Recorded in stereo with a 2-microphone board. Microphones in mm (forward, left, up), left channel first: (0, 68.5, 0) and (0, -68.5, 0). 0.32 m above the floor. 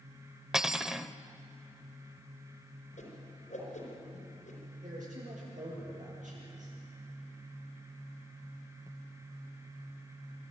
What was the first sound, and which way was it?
Cutlery clinking, 5° right (ahead or behind).